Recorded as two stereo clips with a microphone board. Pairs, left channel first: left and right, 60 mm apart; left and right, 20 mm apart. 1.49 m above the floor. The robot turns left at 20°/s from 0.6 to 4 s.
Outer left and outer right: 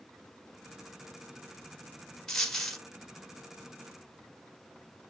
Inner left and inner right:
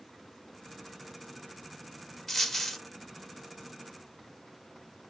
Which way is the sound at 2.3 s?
10° left (ahead or behind).